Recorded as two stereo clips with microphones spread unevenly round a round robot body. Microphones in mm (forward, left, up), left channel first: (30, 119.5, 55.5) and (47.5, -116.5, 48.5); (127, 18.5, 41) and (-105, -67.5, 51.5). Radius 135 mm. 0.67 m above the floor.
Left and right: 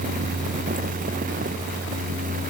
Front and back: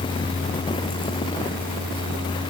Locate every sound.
Only background noise.